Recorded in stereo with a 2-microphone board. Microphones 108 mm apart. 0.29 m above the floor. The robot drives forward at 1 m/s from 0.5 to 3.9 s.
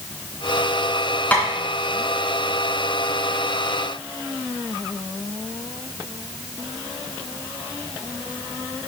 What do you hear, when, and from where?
1.3 s tapping: 15° left (ahead or behind), 3 m